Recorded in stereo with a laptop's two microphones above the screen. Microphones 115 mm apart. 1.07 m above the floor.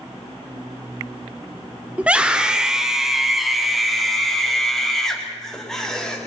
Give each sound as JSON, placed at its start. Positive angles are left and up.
{"t": 2.0, "sound": "a scream", "side_deg": -10, "distance_m": 3.0}